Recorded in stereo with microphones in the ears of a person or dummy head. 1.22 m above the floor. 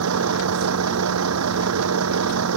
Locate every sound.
0.0 s a vehicle: 80° right